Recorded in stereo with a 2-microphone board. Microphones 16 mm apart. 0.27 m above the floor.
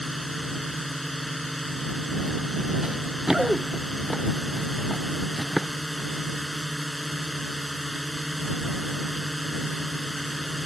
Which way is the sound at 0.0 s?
Centre (ahead or behind).